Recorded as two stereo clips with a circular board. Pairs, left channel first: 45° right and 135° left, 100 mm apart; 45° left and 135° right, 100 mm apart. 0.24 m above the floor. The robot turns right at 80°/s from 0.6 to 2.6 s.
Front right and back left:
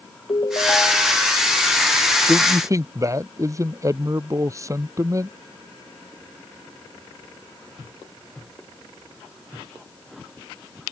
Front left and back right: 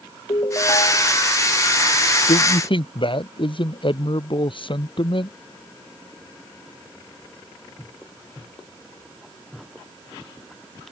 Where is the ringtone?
5° left; by 1.2 s 50° left.